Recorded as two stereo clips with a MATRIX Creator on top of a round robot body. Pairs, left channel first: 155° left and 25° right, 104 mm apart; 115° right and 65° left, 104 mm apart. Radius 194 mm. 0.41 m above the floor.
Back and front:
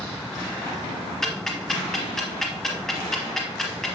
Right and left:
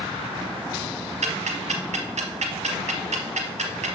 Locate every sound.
1.2 s ticking: 70° left, 1.0 m